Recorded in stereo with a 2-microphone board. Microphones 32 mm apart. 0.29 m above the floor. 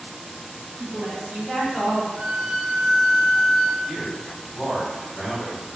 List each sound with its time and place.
0.8 s a woman speaking: 40° right (ahead or behind), 1.5 m; by 2.1 s 25° right (ahead or behind), 1.6 m
2.2 s a violin: 65° right (ahead or behind), 0.6 m
3.9 s a man speaking: centre (ahead or behind), 1.3 m